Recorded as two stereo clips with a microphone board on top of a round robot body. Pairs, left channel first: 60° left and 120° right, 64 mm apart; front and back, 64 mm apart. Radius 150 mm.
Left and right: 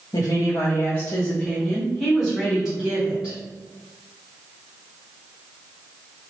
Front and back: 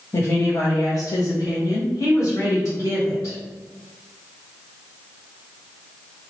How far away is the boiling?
No boiling in this recording.